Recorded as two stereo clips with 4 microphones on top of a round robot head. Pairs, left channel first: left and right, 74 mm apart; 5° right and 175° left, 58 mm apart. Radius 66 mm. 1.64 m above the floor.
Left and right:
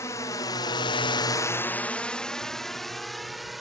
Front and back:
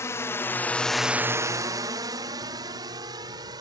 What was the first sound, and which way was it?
A drone, 35° left.